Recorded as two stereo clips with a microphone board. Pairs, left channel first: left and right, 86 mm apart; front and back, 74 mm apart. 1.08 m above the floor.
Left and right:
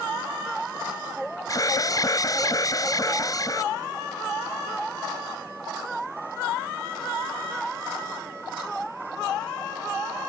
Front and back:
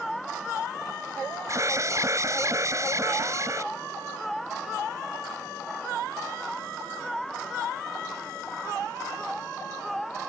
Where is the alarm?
135° left.